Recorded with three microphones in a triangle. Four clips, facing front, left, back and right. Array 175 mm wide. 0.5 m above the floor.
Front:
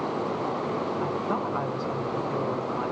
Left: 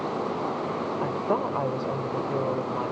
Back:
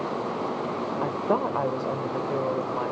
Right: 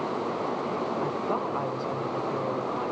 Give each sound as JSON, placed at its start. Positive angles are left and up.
{"t": 1.0, "sound": "a woman speaking", "azimuth_deg": 150, "distance_m": 1.7}